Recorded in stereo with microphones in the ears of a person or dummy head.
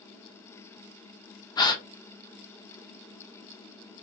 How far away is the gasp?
About 0.6 m.